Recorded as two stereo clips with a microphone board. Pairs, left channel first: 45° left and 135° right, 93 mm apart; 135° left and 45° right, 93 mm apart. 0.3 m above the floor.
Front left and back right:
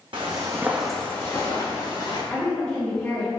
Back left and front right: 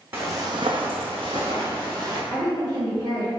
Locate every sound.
0.1 s footsteps: 110° right, 0.8 m; by 2.2 s 5° left, 1.6 m
2.3 s a woman speaking: 30° right, 1.8 m